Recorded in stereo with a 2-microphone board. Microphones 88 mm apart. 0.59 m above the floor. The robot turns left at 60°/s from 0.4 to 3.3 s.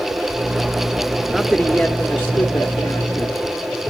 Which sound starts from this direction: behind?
A man speaking, at 1.3 s.